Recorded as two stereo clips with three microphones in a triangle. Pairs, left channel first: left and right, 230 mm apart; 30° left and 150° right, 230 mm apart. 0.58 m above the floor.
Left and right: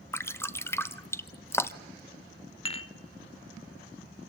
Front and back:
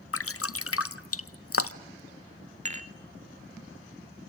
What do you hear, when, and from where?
0.1 s dripping: 10° left, 0.8 m
2.6 s dishes clattering: 155° left, 1.1 m